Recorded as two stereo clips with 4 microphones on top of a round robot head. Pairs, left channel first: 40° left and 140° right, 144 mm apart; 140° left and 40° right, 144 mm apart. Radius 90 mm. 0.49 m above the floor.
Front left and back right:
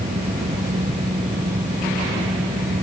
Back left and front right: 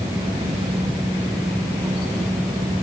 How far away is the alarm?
I don't hear an alarm.